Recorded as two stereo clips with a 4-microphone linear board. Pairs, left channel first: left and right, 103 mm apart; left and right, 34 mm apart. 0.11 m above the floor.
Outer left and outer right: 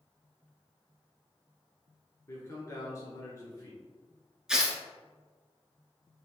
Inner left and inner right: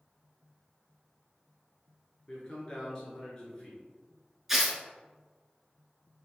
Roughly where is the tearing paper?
Centre.